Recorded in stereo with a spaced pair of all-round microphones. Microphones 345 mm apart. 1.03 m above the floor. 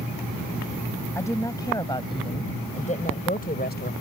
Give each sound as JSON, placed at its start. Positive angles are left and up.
{"t": 1.1, "sound": "a woman speaking", "side_deg": 10}